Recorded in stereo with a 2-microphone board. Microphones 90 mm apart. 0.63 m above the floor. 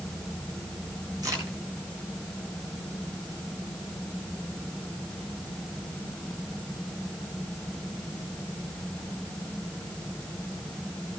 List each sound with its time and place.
1.2 s a crack: 45° right (ahead or behind), 7.5 m